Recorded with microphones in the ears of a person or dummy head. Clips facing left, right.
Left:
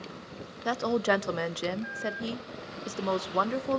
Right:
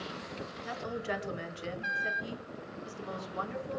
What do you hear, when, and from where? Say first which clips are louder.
0.7 s a woman speaking: left 11 dB; 70° left (ahead or behind), 0.6 m